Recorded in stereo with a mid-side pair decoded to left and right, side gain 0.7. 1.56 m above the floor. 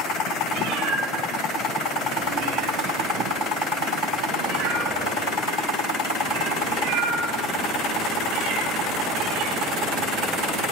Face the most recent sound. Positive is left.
turn(degrees=-65)